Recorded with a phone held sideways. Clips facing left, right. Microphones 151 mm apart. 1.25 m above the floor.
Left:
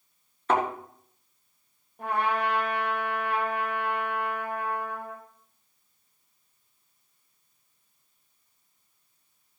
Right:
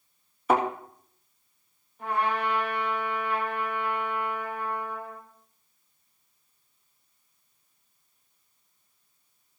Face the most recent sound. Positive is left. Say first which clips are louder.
# left 1 dB
turn(degrees=55)  # may be behind; listen again after turning